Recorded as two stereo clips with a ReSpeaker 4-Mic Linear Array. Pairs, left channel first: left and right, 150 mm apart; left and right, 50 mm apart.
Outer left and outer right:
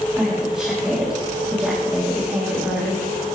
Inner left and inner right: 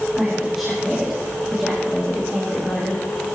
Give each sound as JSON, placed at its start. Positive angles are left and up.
{"t": 0.1, "sound": "a woman speaking", "side_deg": -5, "distance_m": 3.0}